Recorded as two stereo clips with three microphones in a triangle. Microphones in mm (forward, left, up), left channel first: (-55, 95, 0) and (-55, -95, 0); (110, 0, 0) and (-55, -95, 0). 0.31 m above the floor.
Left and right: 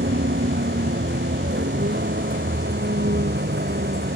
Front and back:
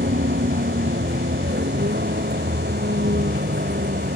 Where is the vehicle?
115° right.